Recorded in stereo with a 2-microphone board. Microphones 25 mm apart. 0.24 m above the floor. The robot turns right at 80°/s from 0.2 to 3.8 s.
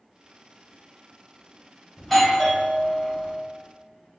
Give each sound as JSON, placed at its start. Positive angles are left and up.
{"t": 2.0, "sound": "a doorbell", "side_deg": 15, "distance_m": 1.4}